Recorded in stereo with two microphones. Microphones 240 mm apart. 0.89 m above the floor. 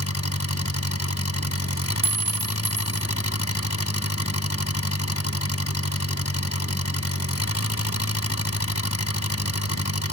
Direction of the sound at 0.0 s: 80° left.